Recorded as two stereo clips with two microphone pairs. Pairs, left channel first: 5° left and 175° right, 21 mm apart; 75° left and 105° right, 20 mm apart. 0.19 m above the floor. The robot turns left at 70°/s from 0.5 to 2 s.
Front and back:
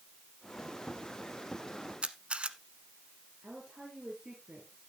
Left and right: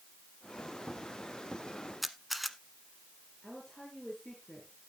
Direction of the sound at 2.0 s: 175° left.